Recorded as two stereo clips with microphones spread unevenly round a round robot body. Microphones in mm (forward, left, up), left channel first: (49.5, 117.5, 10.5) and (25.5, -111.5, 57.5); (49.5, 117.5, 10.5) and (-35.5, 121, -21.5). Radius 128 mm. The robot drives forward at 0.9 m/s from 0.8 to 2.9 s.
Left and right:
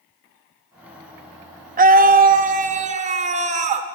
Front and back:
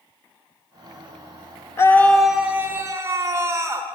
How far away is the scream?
About 0.9 m.